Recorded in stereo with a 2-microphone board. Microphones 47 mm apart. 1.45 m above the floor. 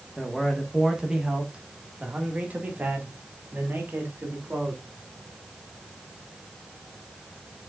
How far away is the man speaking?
About 1.5 m.